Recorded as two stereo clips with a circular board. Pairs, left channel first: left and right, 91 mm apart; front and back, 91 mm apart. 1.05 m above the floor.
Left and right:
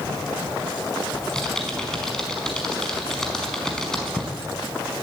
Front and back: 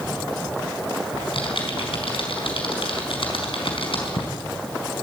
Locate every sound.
1.1 s typing on a keyboard: 5° left, 4.5 m